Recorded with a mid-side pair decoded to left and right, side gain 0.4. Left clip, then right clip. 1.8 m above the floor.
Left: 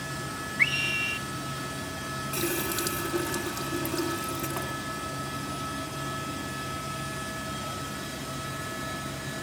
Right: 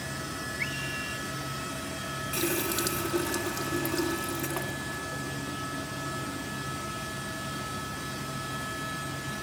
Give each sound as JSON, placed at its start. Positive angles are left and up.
{"t": 0.6, "sound": "a scream", "azimuth_deg": 70}
{"t": 2.3, "sound": "a running tap", "azimuth_deg": -15}